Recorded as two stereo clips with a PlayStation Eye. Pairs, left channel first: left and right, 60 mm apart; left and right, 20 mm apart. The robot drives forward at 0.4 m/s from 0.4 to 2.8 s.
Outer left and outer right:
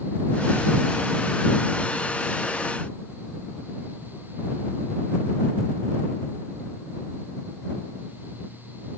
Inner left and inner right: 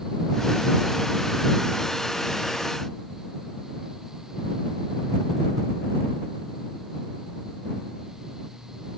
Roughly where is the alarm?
I don't hear an alarm.